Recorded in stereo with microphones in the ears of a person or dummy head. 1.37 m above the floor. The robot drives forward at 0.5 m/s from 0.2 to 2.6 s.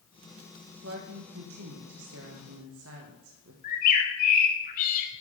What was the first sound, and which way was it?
A woman speaking, 70° right (ahead or behind).